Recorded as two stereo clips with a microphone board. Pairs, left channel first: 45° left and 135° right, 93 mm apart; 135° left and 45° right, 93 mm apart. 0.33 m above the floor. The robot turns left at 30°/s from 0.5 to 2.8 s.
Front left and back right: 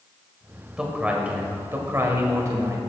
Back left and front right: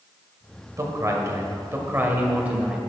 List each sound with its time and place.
0.8 s a man speaking: 60° right, 1.6 m; by 2.8 s 120° right, 1.6 m